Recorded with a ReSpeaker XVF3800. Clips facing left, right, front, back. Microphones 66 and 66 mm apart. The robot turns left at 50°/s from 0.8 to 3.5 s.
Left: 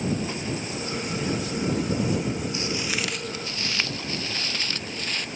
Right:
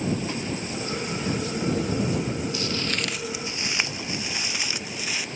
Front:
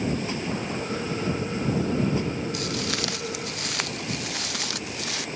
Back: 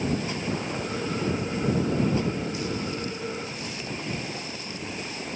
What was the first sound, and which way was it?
Footsteps, 25° left.